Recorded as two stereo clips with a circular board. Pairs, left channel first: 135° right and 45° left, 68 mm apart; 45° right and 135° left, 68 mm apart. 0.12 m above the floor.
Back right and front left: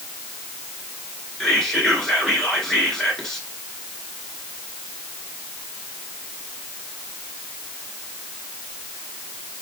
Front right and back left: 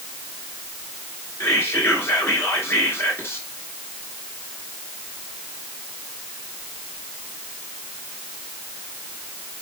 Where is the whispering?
60° right, 1.3 m.